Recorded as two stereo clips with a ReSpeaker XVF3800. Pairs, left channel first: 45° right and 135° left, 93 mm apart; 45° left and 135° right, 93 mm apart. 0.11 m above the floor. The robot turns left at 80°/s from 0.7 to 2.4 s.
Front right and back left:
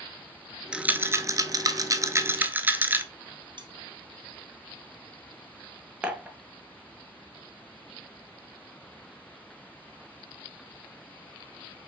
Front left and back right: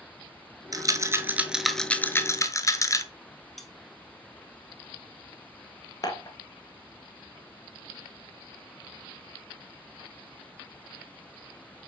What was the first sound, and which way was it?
A rattle, 150° right.